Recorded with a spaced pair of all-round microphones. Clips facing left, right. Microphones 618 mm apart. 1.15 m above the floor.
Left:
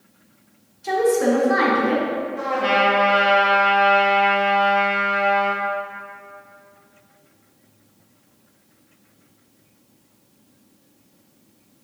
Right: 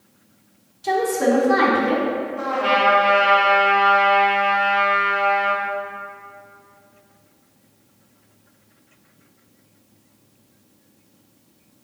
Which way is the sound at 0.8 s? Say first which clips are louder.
Left 2 dB; 65° right (ahead or behind).